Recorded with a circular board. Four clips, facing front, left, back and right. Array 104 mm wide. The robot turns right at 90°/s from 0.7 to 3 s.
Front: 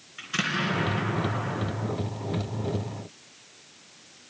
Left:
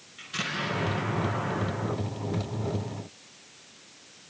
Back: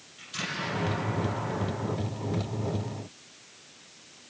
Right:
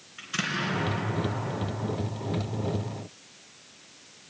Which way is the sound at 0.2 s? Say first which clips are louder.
Right 2 dB, front 6 dB; 25° right.